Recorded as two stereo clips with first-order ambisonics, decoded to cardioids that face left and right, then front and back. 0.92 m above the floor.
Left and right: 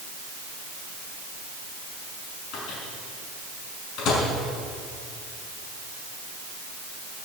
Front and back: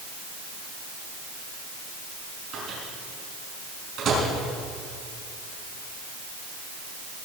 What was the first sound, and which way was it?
A microwave, 125° left.